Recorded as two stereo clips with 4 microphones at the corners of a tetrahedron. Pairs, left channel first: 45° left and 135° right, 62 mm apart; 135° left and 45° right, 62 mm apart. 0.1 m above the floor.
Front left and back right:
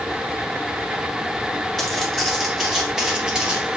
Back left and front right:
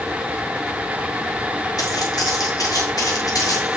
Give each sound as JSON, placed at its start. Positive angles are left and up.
{"t": 1.8, "sound": "footsteps", "azimuth_deg": 135, "distance_m": 4.5}